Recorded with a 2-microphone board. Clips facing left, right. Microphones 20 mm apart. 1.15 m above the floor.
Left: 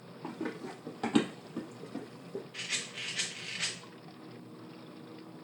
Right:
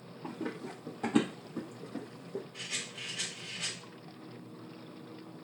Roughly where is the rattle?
Left.